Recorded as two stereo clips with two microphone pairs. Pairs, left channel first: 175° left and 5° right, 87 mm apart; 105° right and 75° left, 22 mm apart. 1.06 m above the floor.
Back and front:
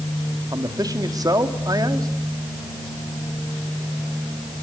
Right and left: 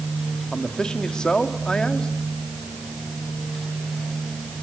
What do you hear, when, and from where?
0.5 s a man speaking: 50° right, 2.5 m